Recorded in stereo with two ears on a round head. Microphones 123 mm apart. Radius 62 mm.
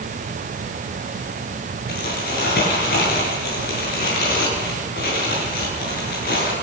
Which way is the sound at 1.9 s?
80° left.